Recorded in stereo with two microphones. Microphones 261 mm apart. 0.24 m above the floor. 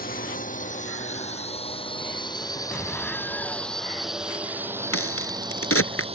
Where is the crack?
60° left (ahead or behind).